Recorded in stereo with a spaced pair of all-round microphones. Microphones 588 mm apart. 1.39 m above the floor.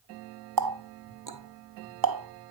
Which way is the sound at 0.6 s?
40° right (ahead or behind).